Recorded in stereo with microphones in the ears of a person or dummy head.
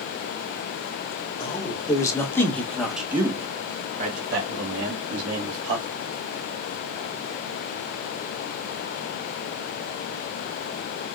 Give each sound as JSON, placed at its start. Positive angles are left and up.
{"t": 1.4, "sound": "a man speaking", "side_deg": 20, "distance_m": 1.8}